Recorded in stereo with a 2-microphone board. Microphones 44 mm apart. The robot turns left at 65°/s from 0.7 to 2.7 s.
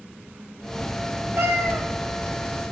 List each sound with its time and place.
1.4 s a cat meowing: 110° right, 0.9 m; by 1.9 s 140° right, 0.9 m